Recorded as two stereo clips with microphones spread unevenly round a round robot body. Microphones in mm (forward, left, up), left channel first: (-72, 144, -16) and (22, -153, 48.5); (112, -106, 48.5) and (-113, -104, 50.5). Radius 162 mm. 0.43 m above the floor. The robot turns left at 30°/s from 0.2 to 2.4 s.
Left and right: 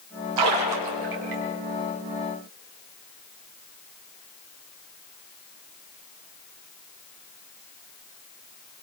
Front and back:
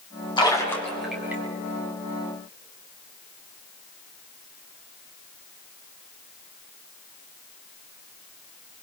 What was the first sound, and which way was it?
A splash, 70° right.